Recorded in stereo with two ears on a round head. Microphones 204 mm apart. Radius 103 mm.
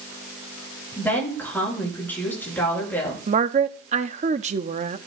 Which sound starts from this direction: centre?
A woman speaking, at 1.0 s.